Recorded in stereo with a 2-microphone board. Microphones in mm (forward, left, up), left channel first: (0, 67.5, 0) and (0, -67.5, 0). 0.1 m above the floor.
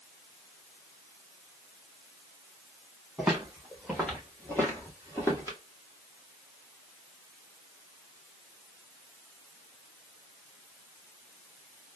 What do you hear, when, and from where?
3.2 s footsteps: 5° right (ahead or behind), 2.0 m; by 5.6 s 25° left (ahead or behind), 2 m